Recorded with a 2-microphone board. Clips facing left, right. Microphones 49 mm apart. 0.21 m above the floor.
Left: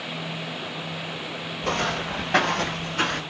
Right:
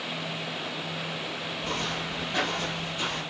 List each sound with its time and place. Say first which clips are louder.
1.6 s footsteps: left 8 dB; 85° left, 5.5 m; by 3.2 s 70° left (ahead or behind), 5 m